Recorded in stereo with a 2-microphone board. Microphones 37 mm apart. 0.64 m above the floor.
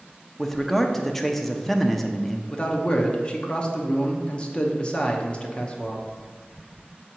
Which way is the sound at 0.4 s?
10° left (ahead or behind).